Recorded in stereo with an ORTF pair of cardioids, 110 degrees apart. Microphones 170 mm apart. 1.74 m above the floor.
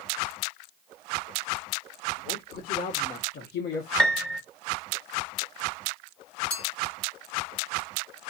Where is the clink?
65° left, 3 m.